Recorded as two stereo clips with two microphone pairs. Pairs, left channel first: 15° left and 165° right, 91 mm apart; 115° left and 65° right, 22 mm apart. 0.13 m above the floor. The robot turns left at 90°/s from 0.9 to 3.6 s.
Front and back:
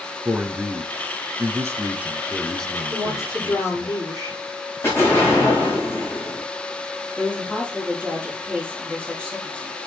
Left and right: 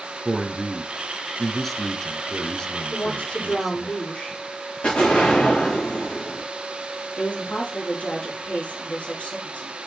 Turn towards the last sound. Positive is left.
turn(degrees=90)